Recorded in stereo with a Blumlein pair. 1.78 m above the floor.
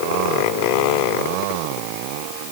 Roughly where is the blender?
I don't hear a blender.